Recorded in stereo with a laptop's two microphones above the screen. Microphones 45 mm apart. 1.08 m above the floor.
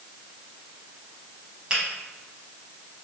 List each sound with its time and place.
1.7 s a finger snap: 25° right (ahead or behind), 1.0 m